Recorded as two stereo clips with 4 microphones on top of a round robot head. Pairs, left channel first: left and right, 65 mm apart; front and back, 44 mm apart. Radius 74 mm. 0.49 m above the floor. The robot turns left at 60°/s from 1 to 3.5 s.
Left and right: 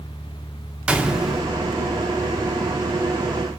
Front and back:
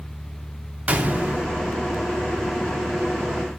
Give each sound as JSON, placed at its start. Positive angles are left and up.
{"t": 0.9, "sound": "a gunshot", "azimuth_deg": -155, "distance_m": 1.1}